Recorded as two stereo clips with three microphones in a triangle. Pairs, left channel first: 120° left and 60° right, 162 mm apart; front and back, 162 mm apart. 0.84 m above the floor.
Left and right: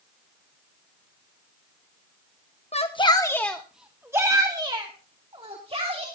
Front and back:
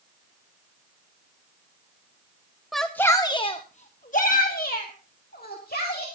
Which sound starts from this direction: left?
A shout, at 2.7 s.